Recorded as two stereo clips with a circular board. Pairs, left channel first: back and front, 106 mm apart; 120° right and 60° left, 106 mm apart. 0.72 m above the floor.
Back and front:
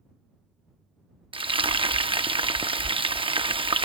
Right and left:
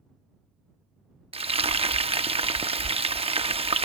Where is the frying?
35° left.